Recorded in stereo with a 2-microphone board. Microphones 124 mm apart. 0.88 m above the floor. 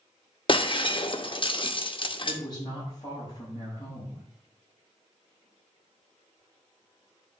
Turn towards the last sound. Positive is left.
turn(degrees=35)  # may be behind; listen again after turning